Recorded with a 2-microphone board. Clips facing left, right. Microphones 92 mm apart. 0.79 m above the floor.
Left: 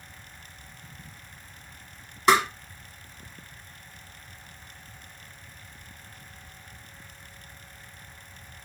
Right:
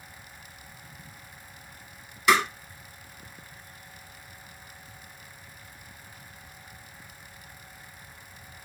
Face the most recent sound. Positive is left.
turn(degrees=35)  # may be behind; listen again after turning